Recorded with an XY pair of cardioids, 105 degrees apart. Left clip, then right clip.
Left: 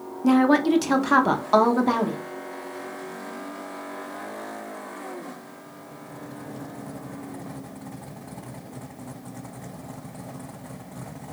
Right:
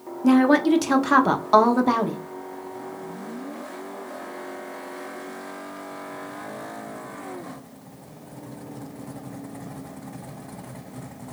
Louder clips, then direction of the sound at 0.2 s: Right 1 dB; 5° right.